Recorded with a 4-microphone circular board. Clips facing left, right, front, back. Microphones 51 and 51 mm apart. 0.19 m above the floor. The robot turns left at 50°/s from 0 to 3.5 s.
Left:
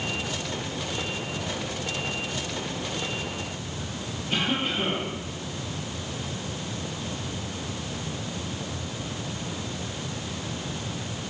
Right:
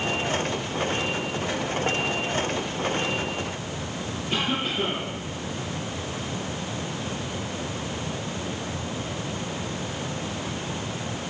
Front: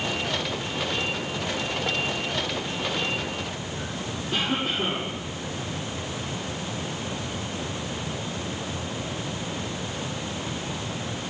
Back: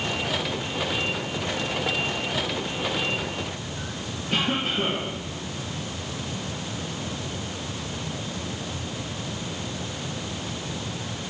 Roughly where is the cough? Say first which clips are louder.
Even, back 2 dB; behind.